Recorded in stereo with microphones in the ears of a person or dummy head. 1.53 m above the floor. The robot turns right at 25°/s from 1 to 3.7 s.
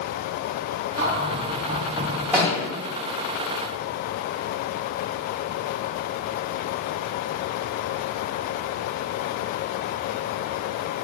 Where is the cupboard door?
50° right, 1.0 m; by 2.2 s 20° right, 1.0 m.